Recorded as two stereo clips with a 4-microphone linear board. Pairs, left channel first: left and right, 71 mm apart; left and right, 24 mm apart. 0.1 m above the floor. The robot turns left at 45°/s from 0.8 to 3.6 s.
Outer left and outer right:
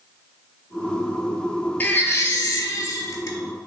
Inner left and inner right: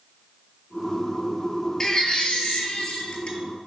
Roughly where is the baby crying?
Behind left.